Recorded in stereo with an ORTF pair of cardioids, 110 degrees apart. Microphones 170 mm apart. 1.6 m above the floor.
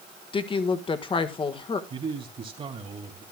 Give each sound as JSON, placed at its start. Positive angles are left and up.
{"t": 0.3, "sound": "a woman speaking", "azimuth_deg": 30, "distance_m": 1.5}
{"t": 1.9, "sound": "a man speaking", "azimuth_deg": -35, "distance_m": 2.5}